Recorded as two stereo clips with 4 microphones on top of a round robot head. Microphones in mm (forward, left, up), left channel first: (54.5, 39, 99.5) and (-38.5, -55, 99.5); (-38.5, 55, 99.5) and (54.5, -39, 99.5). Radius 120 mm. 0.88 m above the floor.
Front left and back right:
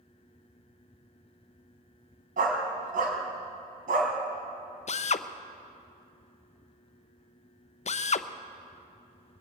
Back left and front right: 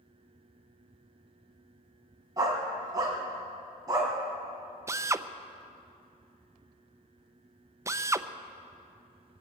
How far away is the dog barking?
About 1.9 m.